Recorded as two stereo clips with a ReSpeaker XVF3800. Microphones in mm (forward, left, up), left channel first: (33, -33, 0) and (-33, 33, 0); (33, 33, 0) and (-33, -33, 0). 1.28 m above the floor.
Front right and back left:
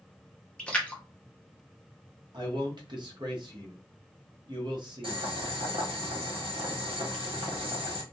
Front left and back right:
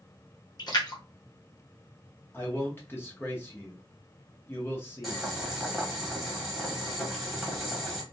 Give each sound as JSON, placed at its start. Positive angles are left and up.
{"t": 0.6, "sound": "a splash", "azimuth_deg": 30, "distance_m": 0.8}
{"t": 2.3, "sound": "a man speaking", "azimuth_deg": 110, "distance_m": 0.8}
{"t": 5.0, "sound": "boiling", "azimuth_deg": 135, "distance_m": 1.1}